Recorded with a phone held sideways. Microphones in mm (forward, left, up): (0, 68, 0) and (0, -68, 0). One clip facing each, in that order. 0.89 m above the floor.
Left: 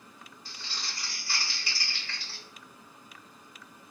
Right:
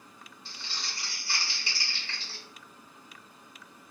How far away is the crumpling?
About 1.3 m.